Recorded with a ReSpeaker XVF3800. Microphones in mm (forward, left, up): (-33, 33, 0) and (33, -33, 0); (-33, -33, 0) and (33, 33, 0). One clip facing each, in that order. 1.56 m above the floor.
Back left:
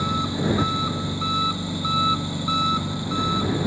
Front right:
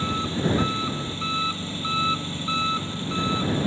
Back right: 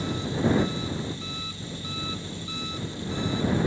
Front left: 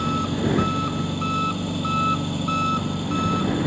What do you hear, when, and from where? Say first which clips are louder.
0.0 s an engine running: back left 1 dB, front left 4 dB; 60° left